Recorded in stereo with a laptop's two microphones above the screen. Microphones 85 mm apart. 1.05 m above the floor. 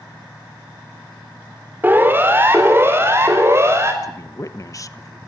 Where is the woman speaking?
40° left (ahead or behind), 1.1 m.